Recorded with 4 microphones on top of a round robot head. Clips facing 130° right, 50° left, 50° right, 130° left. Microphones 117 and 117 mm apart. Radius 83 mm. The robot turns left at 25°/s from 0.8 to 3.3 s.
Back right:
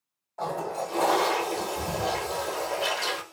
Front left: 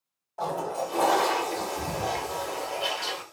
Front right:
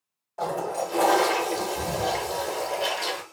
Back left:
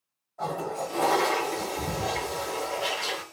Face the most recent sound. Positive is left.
turn(degrees=-95)